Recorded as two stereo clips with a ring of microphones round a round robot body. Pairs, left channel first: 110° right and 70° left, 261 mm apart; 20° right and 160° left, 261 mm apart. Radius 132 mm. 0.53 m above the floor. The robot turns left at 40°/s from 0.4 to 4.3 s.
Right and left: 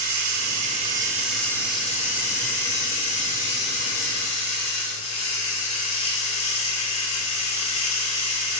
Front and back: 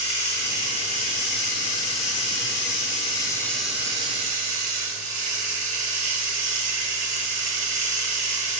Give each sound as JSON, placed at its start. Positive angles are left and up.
{"t": 0.0, "sound": "running water", "azimuth_deg": 15, "distance_m": 2.0}